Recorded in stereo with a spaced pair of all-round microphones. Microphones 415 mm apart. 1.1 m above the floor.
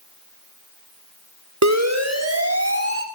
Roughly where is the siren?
Right.